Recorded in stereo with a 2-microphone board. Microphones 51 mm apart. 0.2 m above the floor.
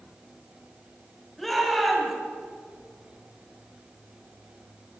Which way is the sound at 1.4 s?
5° left (ahead or behind).